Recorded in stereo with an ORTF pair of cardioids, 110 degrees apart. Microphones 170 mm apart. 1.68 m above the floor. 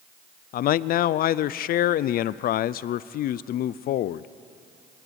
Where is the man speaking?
60° left, 0.5 m.